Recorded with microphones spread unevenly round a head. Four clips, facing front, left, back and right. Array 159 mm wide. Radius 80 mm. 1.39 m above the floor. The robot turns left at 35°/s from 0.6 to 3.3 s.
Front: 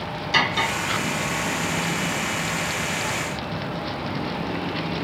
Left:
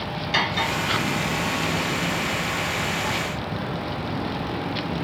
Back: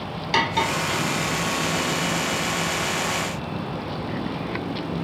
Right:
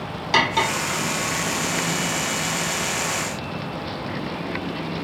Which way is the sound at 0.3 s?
105° right.